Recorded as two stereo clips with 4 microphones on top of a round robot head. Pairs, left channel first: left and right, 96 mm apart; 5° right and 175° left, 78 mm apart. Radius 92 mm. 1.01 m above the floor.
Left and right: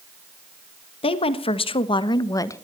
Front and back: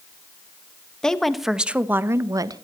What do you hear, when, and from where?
1.0 s a woman speaking: 75° left, 1.6 m; by 2.6 s 150° left, 1.3 m